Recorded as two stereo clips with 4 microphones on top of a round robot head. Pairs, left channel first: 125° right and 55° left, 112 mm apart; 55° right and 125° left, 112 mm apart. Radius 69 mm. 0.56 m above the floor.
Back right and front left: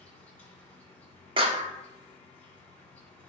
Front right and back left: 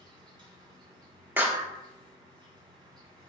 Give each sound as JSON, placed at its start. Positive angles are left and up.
{"t": 0.0, "sound": "an insect", "azimuth_deg": 160, "distance_m": 2.5}
{"t": 1.4, "sound": "a clap", "azimuth_deg": 60, "distance_m": 1.2}